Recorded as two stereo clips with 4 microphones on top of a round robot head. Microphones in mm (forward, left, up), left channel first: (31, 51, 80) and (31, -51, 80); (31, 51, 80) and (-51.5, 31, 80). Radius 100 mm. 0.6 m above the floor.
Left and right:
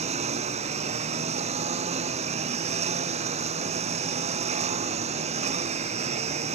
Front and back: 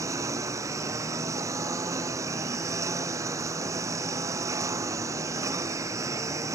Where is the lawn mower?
105° right.